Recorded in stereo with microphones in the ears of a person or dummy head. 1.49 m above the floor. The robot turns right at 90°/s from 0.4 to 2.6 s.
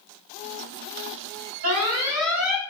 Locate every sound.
1.6 s an alarm: 55° right, 3 m; by 2.6 s 35° left, 3 m